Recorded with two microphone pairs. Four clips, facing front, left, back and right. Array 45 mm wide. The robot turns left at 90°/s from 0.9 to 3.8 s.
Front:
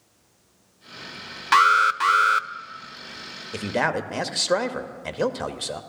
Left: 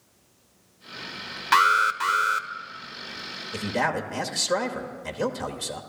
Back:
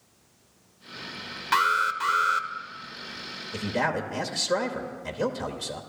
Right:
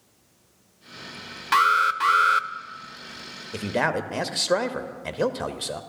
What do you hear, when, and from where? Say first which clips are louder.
1.5 s an alarm: even, front 6 dB; 50° left, 0.5 m; by 2.5 s 40° right, 0.5 m
3.5 s a man speaking: right 1 dB, front 3 dB; 10° right, 1.0 m; by 5.8 s 35° right, 1.0 m